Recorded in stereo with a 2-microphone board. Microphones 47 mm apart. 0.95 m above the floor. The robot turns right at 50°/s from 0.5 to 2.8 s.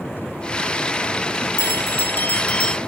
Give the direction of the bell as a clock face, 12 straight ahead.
9 o'clock.